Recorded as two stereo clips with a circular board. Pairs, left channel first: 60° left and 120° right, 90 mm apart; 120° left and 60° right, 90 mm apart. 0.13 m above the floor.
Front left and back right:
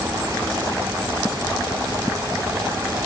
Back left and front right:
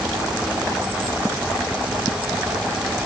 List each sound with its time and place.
Only background noise.